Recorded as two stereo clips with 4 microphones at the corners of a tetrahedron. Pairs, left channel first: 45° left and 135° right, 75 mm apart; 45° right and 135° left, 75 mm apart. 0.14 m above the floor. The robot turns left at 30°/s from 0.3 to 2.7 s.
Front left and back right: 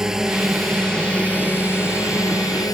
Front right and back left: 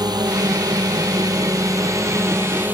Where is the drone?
145° left; by 2.7 s 70° left.